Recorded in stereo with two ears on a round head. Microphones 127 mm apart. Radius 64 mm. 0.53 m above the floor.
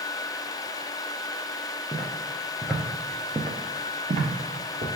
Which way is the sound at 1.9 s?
25° left (ahead or behind).